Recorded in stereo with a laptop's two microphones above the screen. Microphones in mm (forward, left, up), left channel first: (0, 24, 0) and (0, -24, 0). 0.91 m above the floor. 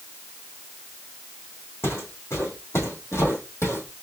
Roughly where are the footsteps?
Left.